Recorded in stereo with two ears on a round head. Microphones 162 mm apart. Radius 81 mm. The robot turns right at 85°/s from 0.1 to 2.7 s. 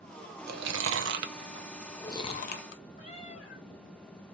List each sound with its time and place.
0.5 s chewing: 55° right (ahead or behind), 0.6 m; by 2.8 s 65° left (ahead or behind), 0.6 m
3.0 s a cat meowing: 40° left (ahead or behind), 3 m